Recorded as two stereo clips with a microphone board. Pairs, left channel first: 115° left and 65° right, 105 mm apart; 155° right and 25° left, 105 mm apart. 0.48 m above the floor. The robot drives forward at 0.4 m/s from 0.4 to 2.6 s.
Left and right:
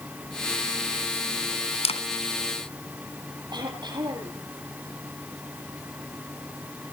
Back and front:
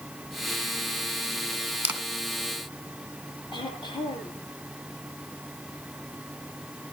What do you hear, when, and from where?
1.8 s a camera shutter: 95° left, 1.8 m
3.5 s throat clearing: 115° right, 9.5 m